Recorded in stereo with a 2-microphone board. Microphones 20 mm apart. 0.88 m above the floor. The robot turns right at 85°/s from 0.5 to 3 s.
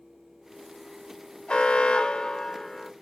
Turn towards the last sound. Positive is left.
turn(degrees=-170)